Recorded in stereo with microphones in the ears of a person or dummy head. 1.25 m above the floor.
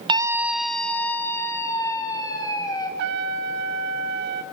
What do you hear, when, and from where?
0.1 s a scream: 25° right (ahead or behind), 0.7 m; by 2.9 s 20° left (ahead or behind), 3 m
3.0 s a trumpet: 60° right (ahead or behind), 1.3 m